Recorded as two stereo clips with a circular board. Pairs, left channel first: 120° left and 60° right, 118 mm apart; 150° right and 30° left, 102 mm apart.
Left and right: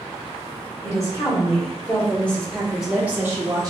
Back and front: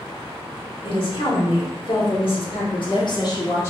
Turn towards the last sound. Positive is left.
turn(degrees=-100)